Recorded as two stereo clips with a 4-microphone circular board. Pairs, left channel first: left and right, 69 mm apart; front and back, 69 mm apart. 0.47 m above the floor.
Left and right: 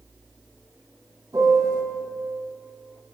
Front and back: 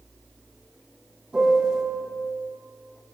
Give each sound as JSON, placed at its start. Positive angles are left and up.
{"t": 1.3, "sound": "a piano", "azimuth_deg": -110, "distance_m": 2.5}